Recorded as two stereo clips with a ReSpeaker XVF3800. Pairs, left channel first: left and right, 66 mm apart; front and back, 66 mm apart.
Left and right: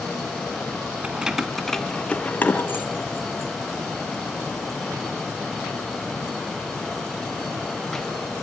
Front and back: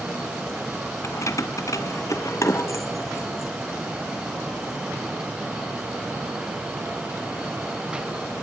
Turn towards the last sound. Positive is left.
turn(degrees=55)